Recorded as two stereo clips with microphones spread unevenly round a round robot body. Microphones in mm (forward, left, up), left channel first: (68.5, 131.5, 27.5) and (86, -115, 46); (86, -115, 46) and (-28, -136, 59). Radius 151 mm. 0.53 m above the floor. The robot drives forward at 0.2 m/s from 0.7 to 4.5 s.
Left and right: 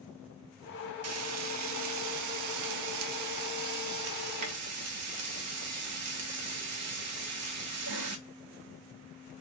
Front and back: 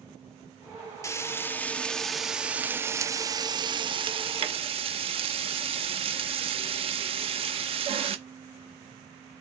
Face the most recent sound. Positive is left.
turn(degrees=-125)